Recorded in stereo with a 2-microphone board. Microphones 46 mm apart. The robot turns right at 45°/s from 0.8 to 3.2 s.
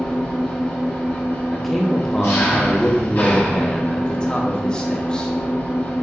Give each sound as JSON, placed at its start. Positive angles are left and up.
{"t": 0.0, "sound": "an engine running", "azimuth_deg": 25, "distance_m": 1.6}
{"t": 1.5, "sound": "a man speaking", "side_deg": 0, "distance_m": 0.6}